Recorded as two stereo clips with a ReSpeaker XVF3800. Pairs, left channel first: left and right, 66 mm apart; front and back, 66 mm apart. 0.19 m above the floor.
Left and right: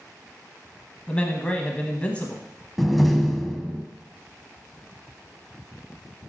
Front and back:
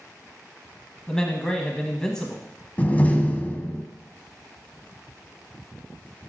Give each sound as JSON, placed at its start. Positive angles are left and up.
{"t": 1.1, "sound": "a man speaking", "azimuth_deg": 60, "distance_m": 1.0}
{"t": 2.8, "sound": "a door slam", "azimuth_deg": 0, "distance_m": 0.7}